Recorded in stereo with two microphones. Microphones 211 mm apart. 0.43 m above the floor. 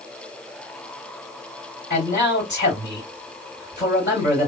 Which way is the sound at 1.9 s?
45° left (ahead or behind).